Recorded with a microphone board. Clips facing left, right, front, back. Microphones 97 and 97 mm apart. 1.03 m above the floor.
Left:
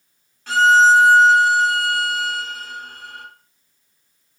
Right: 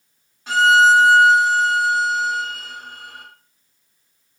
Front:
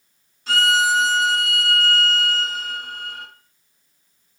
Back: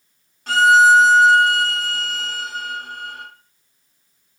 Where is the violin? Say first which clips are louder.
Left 1 dB, back 8 dB; 165° right, 1.4 m.